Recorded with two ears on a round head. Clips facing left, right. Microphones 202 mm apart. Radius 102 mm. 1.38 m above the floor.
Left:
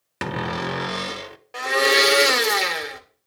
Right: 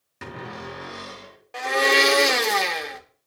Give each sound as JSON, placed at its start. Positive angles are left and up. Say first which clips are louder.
{"t": 0.2, "sound": "a cupboard door", "louder": "left 9 dB", "side_deg": 75, "distance_m": 0.8}
{"t": 1.5, "sound": "a blender", "louder": "left 1 dB", "side_deg": 5, "distance_m": 0.9}